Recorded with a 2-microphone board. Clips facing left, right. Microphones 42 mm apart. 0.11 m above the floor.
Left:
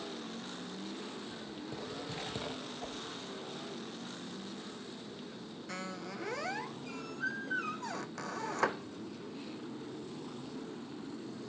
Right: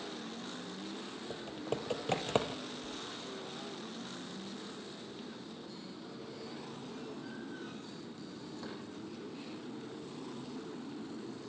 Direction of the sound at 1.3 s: 65° right (ahead or behind).